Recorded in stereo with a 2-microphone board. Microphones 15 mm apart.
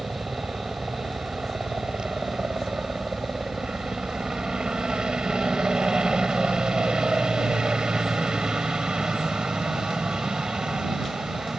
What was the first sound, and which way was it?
A helicopter, 65° right (ahead or behind).